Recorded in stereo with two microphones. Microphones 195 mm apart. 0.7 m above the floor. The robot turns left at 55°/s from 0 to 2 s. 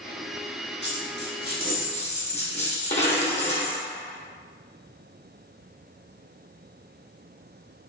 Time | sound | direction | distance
0.8 | a dropped coin | 100° left | 1.3 m